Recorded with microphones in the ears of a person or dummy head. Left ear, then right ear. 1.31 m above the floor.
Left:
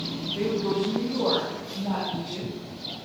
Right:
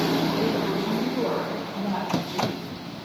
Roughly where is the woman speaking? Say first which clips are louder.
Right 1 dB; centre.